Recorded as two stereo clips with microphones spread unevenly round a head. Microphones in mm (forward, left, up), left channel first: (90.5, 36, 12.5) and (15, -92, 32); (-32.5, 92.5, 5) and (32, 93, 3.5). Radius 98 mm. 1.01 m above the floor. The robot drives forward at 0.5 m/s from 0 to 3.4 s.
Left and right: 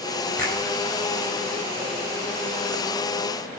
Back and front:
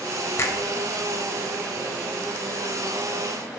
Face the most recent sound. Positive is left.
turn(degrees=150)